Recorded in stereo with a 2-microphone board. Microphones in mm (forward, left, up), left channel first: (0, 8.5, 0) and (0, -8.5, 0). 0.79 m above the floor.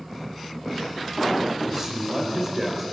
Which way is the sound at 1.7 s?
25° right (ahead or behind).